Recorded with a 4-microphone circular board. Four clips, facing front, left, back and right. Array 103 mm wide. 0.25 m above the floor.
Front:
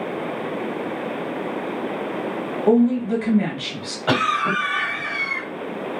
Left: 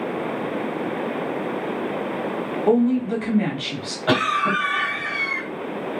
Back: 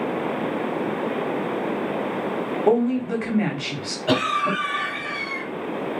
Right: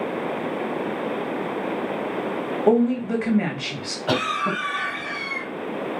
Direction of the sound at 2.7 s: 125° right.